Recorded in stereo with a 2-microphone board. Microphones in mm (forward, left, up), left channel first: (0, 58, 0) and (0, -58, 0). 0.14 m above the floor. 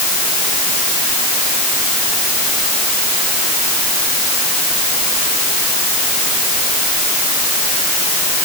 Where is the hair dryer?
No hair dryer in this recording.